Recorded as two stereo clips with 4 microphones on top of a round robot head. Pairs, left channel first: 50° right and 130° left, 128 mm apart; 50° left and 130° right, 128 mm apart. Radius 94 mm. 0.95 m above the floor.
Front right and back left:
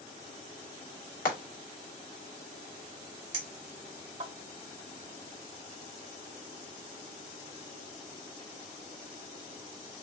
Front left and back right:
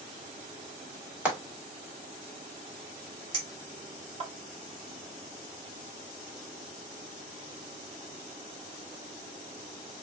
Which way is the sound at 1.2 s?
50° right.